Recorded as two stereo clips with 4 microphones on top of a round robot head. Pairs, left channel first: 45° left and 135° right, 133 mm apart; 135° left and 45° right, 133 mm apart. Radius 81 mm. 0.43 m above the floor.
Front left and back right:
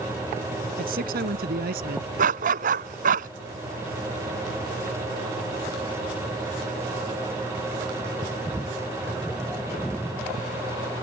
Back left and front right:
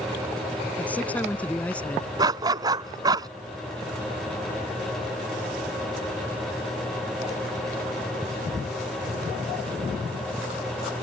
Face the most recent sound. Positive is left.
turn(degrees=-105)